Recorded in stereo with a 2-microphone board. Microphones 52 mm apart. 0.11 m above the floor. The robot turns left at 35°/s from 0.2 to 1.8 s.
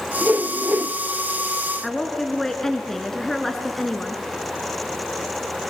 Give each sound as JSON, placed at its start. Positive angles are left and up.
{"t": 0.2, "sound": "a whoosh", "side_deg": -30, "distance_m": 0.5}
{"t": 1.8, "sound": "a woman speaking", "side_deg": 5, "distance_m": 1.5}